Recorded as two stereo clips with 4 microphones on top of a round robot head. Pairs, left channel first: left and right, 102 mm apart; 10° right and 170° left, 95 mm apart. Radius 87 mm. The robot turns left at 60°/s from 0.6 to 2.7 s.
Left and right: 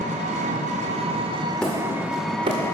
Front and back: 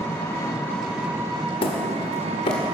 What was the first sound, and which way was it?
An engine running, 80° right.